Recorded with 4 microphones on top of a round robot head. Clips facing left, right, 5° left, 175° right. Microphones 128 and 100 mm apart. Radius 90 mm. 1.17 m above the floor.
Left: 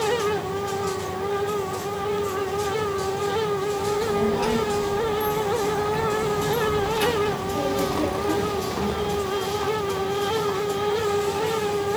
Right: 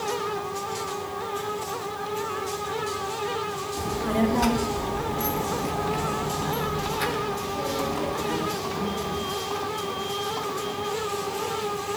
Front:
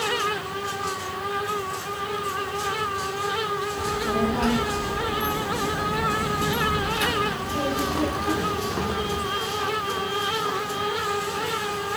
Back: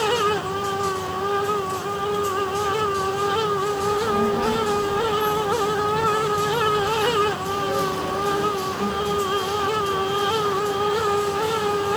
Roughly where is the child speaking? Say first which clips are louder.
Right 2 dB, back 1 dB; right.